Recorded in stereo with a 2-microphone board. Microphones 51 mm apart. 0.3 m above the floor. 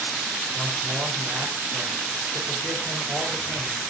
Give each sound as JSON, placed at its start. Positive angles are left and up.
{"t": 0.5, "sound": "a man speaking", "side_deg": -75, "distance_m": 4.5}